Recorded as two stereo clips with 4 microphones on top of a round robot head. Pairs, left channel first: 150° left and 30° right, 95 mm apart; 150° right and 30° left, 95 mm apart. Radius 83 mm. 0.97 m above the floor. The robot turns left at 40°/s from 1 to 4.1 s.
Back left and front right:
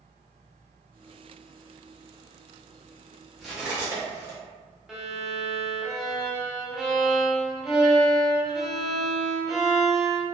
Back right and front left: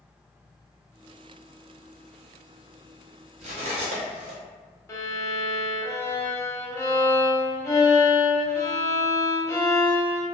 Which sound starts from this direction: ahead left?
Cutlery clinking, at 3.4 s.